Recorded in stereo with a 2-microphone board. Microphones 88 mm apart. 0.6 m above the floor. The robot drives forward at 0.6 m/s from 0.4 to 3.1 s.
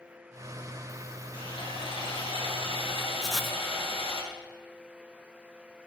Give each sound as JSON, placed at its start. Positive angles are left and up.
{"t": 1.3, "sound": "sawing", "side_deg": 70, "distance_m": 4.0}
{"t": 3.2, "sound": "writing", "side_deg": 0, "distance_m": 0.9}